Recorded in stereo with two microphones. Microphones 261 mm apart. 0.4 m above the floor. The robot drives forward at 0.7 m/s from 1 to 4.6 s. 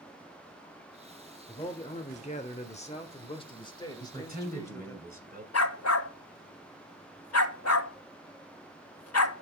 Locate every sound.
1.5 s a man speaking: 20° left (ahead or behind), 1.0 m; by 5.0 s 10° left (ahead or behind), 1.8 m
4.0 s a man speaking: 35° right (ahead or behind), 2 m
5.5 s a dog barking: 70° left (ahead or behind), 0.5 m